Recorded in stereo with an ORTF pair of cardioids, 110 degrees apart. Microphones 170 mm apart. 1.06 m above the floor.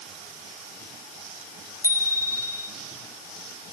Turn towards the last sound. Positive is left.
turn(degrees=20)